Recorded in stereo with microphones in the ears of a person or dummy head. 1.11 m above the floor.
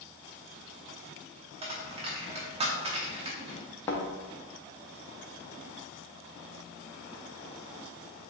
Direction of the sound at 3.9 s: 15° left (ahead or behind).